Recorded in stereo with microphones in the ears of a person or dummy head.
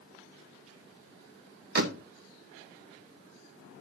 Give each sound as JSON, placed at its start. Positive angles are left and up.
{"t": 1.8, "sound": "a door slam", "side_deg": -60, "distance_m": 1.1}